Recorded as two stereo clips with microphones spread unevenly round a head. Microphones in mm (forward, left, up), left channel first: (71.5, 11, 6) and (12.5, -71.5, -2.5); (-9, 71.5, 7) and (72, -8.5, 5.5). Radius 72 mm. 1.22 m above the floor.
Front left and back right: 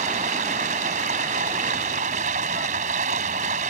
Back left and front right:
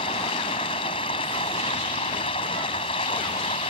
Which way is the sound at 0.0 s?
165° right.